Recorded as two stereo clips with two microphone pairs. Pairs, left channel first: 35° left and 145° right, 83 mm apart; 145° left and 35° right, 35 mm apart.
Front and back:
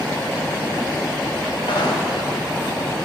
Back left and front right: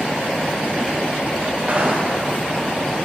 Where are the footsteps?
30° left, 3.5 m.